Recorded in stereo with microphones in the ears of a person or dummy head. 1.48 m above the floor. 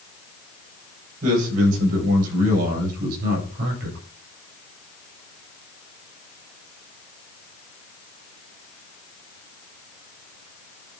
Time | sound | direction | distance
1.2 | a man speaking | 50° right (ahead or behind) | 8.5 m